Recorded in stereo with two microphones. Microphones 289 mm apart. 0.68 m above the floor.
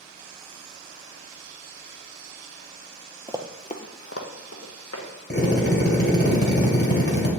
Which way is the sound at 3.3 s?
20° right (ahead or behind).